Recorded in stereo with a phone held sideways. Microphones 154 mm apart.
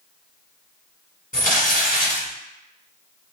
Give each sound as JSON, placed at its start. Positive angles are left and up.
{"t": 1.3, "sound": "crumpling", "side_deg": 65, "distance_m": 1.8}